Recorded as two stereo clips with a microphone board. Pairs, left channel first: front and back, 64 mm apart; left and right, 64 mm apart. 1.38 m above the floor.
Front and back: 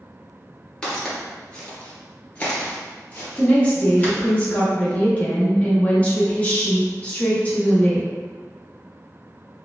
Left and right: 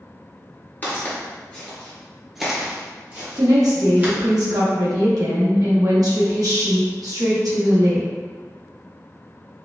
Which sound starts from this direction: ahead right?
A woman speaking, at 3.4 s.